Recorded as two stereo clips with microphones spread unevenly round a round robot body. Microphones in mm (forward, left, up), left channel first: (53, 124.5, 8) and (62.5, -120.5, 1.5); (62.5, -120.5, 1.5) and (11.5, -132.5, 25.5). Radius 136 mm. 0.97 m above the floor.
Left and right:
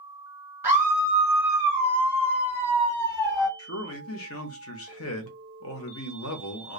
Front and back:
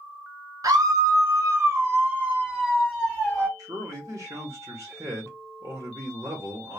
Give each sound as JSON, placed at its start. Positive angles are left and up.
{"t": 0.6, "sound": "a scream", "azimuth_deg": -165, "distance_m": 1.2}
{"t": 3.6, "sound": "a man speaking", "azimuth_deg": 135, "distance_m": 0.6}